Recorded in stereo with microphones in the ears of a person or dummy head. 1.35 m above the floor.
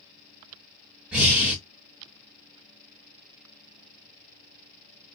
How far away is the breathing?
About 1.4 m.